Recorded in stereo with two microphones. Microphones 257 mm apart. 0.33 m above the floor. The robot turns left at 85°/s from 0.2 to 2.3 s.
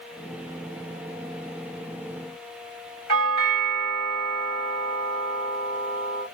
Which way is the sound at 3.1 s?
20° left (ahead or behind).